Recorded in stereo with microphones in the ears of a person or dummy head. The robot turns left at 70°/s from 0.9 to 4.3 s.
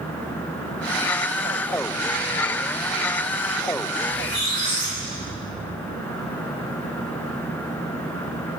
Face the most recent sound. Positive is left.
turn(degrees=-30)  # may be behind; listen again after turning